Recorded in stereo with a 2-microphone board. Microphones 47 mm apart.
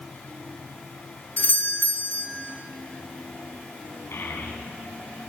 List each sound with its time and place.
1.4 s a doorbell: 45° left (ahead or behind), 3 m
4.1 s a child speaking: 60° left (ahead or behind), 5 m